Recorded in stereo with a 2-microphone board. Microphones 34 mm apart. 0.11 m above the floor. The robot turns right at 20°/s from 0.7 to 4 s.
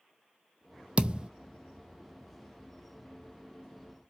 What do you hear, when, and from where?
1.0 s a thud: 30° right (ahead or behind), 0.6 m; by 1.3 s 25° right (ahead or behind), 0.6 m